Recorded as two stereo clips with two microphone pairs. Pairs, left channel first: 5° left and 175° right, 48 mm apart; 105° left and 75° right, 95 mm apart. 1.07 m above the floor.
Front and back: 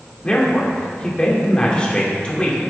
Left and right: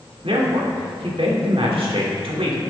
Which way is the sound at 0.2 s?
60° right.